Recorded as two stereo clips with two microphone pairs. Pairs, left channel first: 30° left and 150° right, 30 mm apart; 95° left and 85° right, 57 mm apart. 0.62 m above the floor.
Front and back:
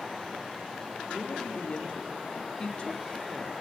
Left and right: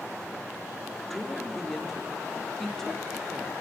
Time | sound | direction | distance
1.1 | a woman speaking | 15° left | 1.4 m